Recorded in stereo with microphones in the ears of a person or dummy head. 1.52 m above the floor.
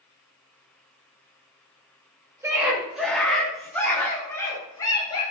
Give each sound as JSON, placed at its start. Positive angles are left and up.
{"t": 2.4, "sound": "a scream", "side_deg": -15, "distance_m": 3.0}